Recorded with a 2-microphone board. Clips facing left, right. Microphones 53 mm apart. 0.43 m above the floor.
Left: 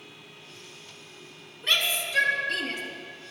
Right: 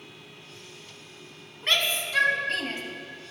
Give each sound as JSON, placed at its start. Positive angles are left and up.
{"t": 1.6, "sound": "a shout", "side_deg": -50, "distance_m": 3.5}